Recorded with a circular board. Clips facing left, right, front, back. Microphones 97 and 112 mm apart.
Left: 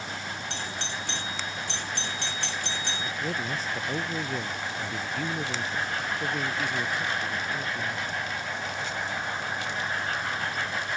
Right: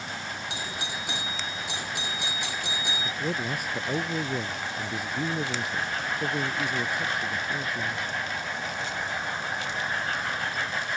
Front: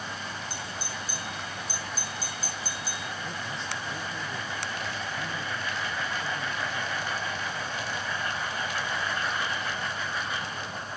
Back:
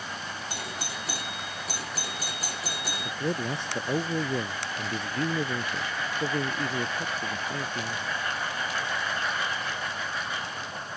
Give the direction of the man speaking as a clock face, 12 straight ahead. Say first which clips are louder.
Right 2 dB, back 6 dB; 6 o'clock.